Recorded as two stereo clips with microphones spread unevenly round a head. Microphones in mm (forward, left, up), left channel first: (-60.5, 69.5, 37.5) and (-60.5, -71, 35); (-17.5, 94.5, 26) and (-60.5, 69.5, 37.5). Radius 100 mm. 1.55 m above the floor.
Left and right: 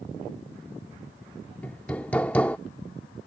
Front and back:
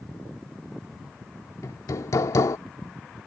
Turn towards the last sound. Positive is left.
turn(degrees=10)